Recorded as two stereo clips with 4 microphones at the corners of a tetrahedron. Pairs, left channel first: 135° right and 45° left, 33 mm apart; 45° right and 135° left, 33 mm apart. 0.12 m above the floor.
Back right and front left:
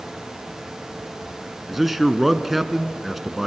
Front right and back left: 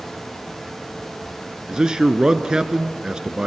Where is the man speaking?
120° left, 1.1 m.